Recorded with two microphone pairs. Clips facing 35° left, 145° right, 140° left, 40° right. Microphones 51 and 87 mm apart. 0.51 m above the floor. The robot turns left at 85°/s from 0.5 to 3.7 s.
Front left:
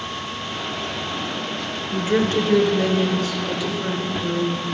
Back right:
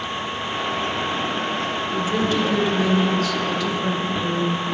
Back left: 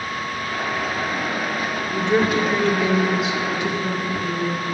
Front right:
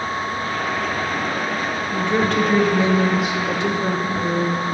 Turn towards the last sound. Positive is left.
turn(degrees=-50)